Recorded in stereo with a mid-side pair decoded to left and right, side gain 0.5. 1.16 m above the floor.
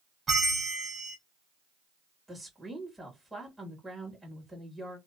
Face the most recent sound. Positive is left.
turn(degrees=-5)